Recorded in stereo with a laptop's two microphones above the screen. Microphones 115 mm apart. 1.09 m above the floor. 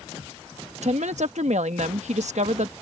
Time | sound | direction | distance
0.8 | a woman speaking | 85° right | ?